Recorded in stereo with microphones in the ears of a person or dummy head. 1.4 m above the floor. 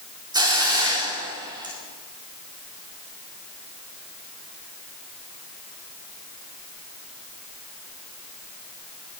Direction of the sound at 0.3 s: 20° right (ahead or behind).